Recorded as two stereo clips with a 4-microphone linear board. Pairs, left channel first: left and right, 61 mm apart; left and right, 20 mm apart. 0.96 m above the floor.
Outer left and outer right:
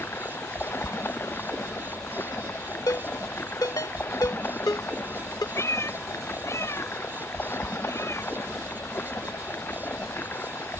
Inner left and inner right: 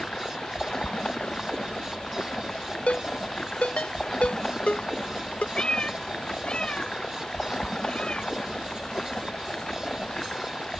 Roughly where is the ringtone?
Left.